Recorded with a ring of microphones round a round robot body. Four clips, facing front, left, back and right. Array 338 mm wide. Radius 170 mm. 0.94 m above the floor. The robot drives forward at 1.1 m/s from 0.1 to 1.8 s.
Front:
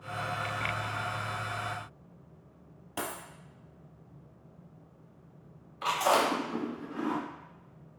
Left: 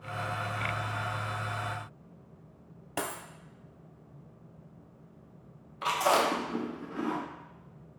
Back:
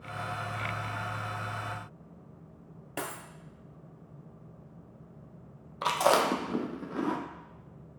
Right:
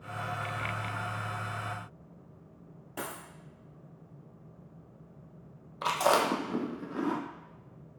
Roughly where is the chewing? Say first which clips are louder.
Even, back 1 dB; behind right.